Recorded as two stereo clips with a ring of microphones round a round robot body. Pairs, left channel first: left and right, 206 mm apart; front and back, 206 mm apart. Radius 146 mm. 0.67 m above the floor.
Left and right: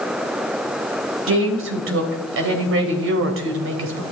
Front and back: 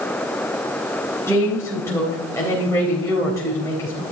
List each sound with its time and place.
1.3 s a woman speaking: 80° right, 3 m